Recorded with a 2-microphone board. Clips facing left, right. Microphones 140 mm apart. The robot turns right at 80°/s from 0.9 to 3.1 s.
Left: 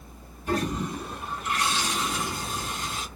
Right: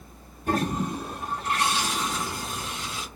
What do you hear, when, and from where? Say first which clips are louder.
0.5 s a toilet flushing: right 2 dB; 85° right, 1.6 m; by 3.1 s 85° left, 1.6 m